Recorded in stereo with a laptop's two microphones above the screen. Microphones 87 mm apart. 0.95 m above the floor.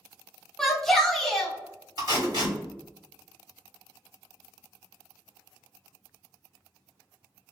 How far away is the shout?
About 0.8 m.